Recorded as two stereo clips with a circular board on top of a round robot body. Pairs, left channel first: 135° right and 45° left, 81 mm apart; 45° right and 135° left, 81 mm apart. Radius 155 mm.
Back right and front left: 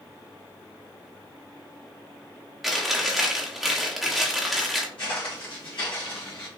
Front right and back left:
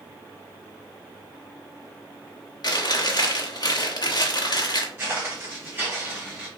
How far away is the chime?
I don't hear a chime.